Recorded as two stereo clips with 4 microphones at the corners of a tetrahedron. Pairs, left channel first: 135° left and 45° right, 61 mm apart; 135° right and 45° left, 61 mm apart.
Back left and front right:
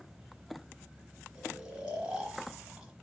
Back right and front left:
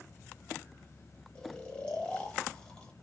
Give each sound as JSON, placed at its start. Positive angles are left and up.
{"t": 1.4, "sound": "snoring", "azimuth_deg": -95, "distance_m": 1.3}